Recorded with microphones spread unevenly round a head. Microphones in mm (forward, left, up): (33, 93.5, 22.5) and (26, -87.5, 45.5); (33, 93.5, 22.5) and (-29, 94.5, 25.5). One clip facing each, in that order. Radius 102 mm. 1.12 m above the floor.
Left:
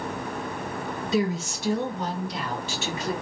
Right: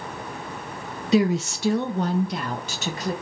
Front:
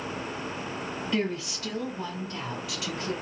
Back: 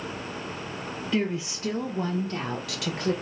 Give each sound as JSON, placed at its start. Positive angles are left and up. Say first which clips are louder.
{"t": 1.1, "sound": "a woman speaking", "louder": "right 6 dB, back 2 dB", "azimuth_deg": -85, "distance_m": 0.8}